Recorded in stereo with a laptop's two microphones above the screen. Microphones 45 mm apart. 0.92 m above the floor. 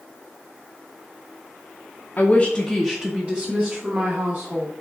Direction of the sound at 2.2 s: 40° left (ahead or behind).